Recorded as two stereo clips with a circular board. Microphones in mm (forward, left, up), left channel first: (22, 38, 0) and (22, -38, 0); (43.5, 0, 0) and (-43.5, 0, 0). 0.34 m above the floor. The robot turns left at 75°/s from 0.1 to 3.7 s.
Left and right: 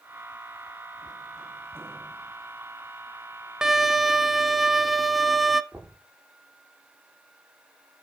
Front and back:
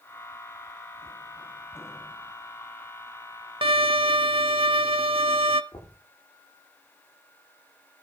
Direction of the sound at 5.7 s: 30° right.